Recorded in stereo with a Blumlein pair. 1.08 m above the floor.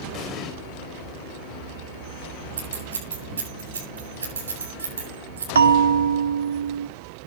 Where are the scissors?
65° right, 8 m.